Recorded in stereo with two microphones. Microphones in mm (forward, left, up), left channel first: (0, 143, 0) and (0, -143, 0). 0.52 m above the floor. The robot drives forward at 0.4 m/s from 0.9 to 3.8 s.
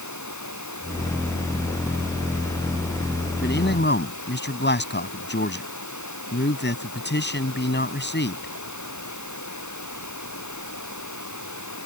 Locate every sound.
0.0 s running water: 80° left
3.4 s a man speaking: 35° left (ahead or behind); by 8.5 s 40° left (ahead or behind)